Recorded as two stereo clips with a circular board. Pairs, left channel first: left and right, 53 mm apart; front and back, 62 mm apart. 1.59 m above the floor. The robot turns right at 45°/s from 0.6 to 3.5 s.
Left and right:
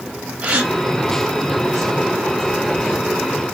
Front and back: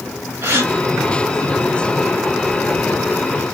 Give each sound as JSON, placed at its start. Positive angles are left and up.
{"t": 0.4, "sound": "a gasp", "azimuth_deg": -150, "distance_m": 1.3}